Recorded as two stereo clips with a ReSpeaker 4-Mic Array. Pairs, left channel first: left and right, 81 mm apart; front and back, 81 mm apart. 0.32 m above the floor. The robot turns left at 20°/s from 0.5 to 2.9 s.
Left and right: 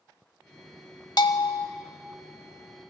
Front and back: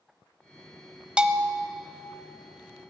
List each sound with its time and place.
1.2 s a bell: 105° left, 0.7 m; by 1.7 s 95° left, 0.7 m